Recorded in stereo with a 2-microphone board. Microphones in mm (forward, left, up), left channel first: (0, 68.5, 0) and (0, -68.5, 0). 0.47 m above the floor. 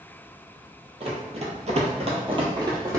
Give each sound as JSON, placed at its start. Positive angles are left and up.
{"t": 1.0, "sound": "running footsteps", "side_deg": -45, "distance_m": 0.9}